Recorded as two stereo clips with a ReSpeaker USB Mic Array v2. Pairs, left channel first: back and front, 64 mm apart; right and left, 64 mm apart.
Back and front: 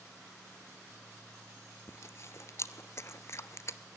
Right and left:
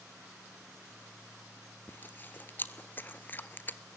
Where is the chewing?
145° right, 0.6 m.